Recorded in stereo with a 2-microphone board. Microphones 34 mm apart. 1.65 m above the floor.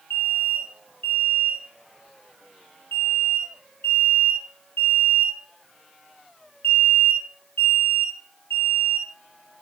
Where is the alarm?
70° left (ahead or behind), 8 m.